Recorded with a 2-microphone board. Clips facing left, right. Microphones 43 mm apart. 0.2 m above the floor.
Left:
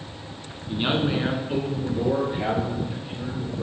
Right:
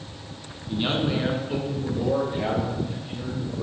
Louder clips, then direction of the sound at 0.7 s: Left 1 dB; 20° left (ahead or behind).